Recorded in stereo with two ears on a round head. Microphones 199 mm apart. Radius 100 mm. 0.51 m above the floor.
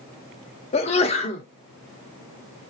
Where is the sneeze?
30° left (ahead or behind), 0.8 m.